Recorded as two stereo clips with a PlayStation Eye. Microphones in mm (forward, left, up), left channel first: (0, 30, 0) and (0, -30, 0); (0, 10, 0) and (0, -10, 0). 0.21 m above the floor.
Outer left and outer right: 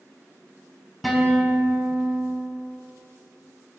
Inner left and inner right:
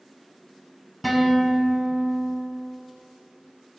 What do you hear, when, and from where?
1.0 s a guitar: 5° right (ahead or behind), 0.8 m